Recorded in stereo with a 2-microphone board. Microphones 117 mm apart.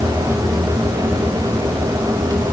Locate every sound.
Only background noise.